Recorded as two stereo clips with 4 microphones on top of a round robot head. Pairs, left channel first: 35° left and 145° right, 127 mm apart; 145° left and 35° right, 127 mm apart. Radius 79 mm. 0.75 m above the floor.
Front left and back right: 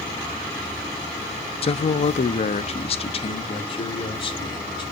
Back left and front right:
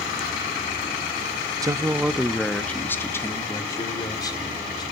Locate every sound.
1.6 s a man speaking: 20° left, 0.7 m; by 4.8 s 85° left, 2.5 m